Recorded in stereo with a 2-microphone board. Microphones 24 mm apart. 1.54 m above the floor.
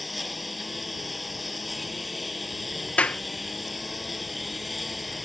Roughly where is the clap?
Left.